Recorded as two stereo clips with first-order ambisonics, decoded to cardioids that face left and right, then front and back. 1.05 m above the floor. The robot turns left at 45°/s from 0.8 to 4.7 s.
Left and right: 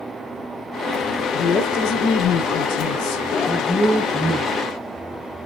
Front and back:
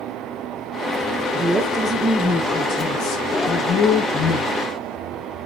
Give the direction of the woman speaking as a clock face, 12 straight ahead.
8 o'clock.